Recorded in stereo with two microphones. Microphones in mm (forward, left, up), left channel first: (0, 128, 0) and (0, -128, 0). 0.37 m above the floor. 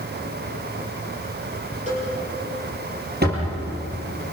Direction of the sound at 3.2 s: 40° right (ahead or behind).